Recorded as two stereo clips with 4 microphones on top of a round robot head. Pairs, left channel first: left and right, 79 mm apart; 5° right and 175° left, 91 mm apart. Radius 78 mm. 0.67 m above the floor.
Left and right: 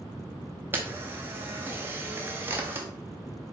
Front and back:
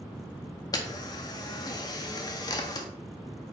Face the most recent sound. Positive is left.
turn(degrees=-35)